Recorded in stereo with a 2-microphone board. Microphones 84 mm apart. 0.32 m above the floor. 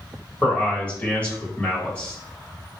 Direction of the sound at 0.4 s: 15° left (ahead or behind).